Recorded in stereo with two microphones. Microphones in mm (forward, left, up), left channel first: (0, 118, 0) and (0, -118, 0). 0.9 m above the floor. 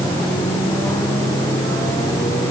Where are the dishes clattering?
No dishes clattering in this recording.